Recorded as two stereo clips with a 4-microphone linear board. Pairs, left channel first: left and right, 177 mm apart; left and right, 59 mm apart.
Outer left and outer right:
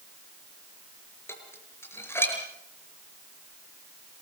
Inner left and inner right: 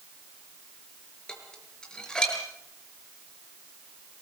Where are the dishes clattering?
15° left (ahead or behind), 5.5 m.